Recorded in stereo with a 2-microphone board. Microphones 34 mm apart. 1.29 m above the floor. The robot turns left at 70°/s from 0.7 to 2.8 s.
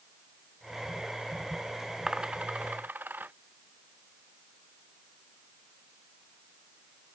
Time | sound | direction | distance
2.1 | a dropped coin | 15° right (ahead or behind) | ?